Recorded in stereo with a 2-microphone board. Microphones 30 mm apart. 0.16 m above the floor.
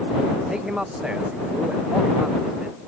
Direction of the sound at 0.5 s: 25° right (ahead or behind).